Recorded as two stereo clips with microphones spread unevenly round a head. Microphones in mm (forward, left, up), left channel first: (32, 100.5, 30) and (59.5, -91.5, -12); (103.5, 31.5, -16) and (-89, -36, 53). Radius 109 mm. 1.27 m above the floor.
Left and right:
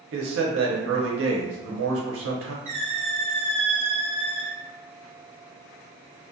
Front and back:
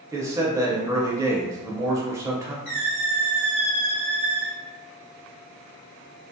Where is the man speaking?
85° right, 0.8 m.